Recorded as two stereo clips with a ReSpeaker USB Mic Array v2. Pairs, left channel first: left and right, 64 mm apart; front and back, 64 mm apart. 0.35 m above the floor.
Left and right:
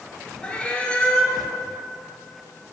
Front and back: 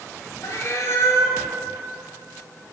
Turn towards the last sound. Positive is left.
turn(degrees=25)